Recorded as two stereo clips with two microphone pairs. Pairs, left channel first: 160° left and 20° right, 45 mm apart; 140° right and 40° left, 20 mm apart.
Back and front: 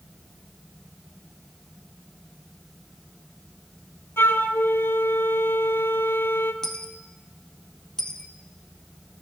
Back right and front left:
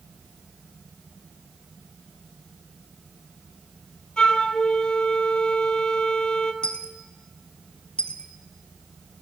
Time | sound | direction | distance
4.2 | a flute | straight behind | 0.6 m
6.6 | a dropped coin | 125° right | 0.7 m